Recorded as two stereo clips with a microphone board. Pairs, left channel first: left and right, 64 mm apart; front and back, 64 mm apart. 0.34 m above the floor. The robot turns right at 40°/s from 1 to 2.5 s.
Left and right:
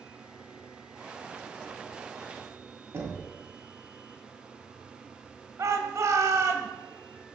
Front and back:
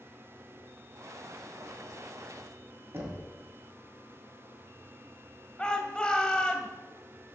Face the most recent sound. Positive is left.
turn(degrees=-70)